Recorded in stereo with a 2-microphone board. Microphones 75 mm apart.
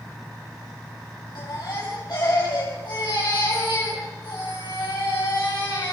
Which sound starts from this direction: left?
A baby crying, at 1.4 s.